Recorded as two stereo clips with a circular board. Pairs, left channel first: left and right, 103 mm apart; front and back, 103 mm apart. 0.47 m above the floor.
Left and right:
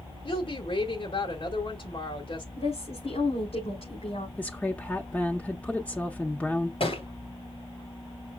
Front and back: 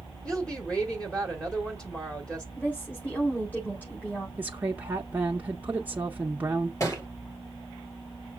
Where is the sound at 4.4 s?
140° left, 0.8 m.